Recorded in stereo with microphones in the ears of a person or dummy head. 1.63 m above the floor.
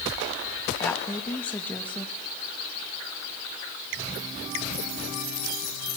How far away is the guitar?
I don't hear a guitar.